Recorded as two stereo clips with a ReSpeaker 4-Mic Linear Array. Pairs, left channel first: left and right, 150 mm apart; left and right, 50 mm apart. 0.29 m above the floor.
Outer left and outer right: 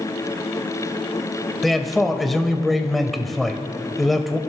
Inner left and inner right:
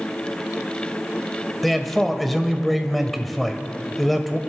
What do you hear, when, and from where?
1.6 s a man speaking: centre (ahead or behind), 0.9 m